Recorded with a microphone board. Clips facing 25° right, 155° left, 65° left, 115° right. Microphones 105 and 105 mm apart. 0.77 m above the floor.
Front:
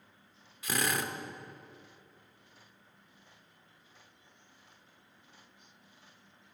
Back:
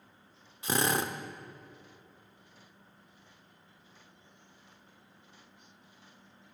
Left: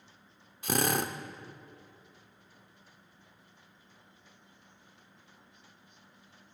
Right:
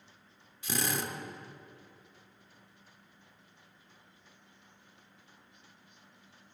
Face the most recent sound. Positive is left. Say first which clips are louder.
# back 3 dB, left 5 dB
turn(degrees=100)